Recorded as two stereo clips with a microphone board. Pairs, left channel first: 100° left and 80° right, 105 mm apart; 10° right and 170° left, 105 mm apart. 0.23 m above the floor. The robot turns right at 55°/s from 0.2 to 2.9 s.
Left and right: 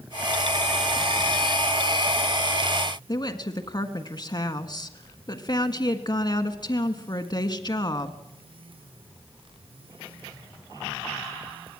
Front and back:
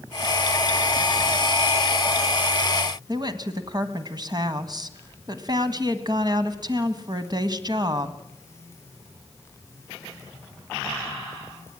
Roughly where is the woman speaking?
Behind left.